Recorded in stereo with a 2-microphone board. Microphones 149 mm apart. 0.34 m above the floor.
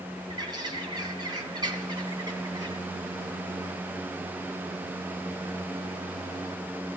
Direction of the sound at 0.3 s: 30° right (ahead or behind).